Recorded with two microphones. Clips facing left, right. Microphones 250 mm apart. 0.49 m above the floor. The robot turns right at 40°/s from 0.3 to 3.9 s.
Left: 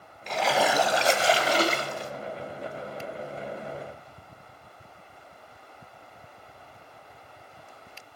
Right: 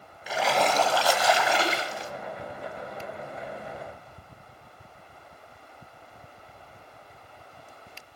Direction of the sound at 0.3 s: 5° right.